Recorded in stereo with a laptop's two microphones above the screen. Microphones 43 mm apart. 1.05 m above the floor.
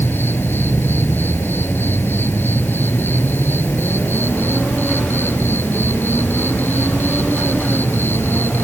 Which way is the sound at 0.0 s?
60° left (ahead or behind).